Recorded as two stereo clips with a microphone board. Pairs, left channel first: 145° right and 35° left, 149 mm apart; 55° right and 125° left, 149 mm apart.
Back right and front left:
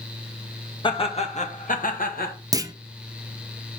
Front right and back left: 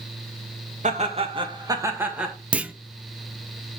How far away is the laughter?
About 2 m.